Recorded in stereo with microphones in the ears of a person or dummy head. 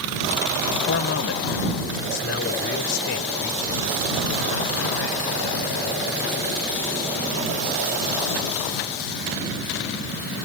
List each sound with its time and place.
0.9 s a man speaking: 60° left (ahead or behind); by 7.5 s 70° left (ahead or behind)